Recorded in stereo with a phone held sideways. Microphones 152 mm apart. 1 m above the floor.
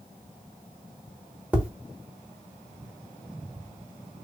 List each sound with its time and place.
1.5 s tapping: 10° right (ahead or behind), 1.1 m